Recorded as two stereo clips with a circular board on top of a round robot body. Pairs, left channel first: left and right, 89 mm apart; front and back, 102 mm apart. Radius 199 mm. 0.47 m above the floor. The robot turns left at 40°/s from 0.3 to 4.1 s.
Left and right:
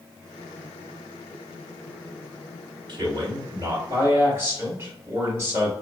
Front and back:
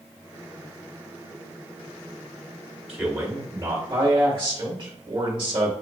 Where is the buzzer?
I don't hear a buzzer.